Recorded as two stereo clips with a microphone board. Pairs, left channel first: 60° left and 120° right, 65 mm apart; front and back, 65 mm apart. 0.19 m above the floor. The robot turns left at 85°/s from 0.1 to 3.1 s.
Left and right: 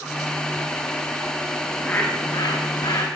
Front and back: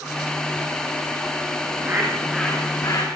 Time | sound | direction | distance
1.6 | a bird | 150° left | 9 m